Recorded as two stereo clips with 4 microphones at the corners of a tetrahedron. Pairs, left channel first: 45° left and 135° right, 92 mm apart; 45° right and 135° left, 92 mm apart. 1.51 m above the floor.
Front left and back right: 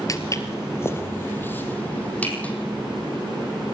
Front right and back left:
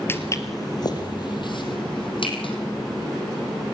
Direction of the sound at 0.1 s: 10° left.